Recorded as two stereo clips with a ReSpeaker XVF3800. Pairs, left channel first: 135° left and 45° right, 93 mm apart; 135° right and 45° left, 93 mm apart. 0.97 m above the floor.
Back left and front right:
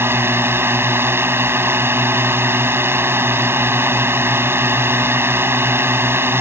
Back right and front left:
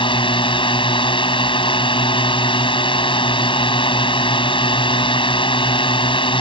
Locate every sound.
0.0 s a drone: 110° right